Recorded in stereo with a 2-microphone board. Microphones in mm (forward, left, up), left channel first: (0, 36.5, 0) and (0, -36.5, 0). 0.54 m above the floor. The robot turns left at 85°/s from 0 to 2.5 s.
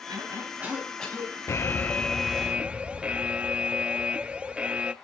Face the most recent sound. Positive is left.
turn(degrees=-25)